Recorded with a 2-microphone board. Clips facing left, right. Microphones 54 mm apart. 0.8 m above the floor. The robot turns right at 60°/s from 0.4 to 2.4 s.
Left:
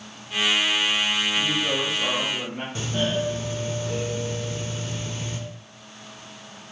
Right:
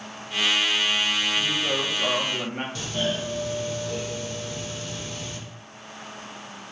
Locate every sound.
1.4 s a woman speaking: 160° left, 1.1 m; by 2.6 s 135° right, 1.1 m
2.8 s a doorbell: 25° left (ahead or behind), 0.9 m